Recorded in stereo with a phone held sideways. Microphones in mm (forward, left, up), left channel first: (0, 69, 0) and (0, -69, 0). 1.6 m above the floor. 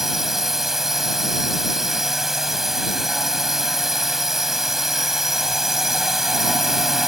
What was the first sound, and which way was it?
A drone, 5° right (ahead or behind).